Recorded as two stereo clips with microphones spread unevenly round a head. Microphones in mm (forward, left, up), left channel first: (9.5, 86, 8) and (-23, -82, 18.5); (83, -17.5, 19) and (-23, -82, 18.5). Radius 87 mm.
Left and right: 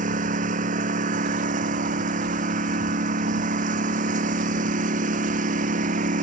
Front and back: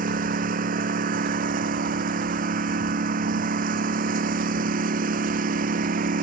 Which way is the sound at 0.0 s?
145° right.